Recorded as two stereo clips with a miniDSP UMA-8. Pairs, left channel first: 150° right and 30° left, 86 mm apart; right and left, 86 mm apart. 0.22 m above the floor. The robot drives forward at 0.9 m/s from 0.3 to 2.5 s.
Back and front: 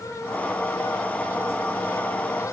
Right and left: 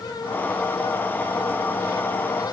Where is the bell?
No bell in this recording.